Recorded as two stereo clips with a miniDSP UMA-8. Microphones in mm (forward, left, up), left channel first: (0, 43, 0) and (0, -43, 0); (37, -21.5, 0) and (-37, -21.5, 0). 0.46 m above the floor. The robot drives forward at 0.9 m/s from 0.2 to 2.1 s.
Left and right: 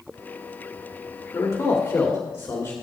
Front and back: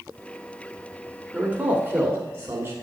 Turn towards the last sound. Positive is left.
turn(degrees=140)